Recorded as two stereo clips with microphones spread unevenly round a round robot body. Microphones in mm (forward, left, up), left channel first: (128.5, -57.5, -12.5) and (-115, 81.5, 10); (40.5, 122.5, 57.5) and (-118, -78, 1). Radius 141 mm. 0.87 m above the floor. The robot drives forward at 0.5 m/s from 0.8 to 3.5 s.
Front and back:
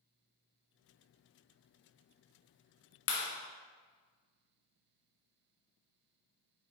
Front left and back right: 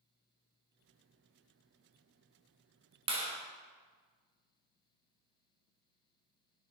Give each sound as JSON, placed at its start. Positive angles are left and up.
{"t": 3.1, "sound": "a clap", "azimuth_deg": -70, "distance_m": 1.0}